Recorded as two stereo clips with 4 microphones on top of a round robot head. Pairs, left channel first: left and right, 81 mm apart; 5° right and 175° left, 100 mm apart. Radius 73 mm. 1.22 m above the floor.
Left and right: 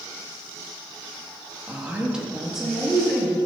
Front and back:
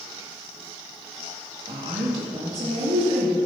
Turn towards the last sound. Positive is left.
turn(degrees=175)